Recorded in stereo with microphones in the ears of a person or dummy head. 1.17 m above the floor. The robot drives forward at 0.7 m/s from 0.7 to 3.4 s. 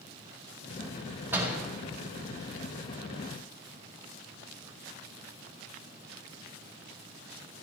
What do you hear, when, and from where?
1.3 s a door slam: 15° right (ahead or behind), 4.5 m